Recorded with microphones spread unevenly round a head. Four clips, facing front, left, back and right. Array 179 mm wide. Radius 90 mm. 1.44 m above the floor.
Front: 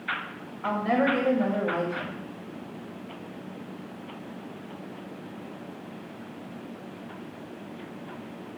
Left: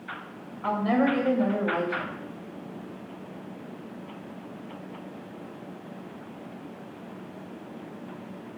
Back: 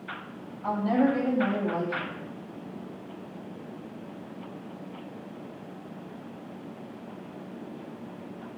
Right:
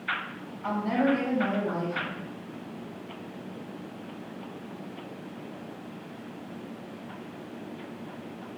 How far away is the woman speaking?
About 7.5 m.